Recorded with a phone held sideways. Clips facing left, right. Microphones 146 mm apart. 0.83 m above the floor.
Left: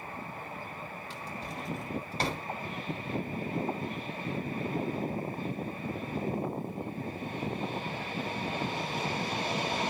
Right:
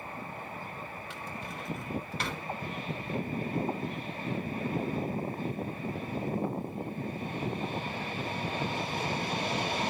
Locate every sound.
1.1 s a drawer: 35° left (ahead or behind), 2.0 m